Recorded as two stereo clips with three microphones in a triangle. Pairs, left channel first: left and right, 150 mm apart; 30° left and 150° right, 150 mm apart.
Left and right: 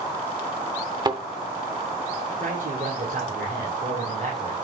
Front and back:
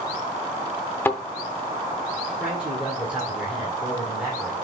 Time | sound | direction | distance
1.1 | a thud | 40° right | 0.7 m
2.4 | a man speaking | 70° right | 2.5 m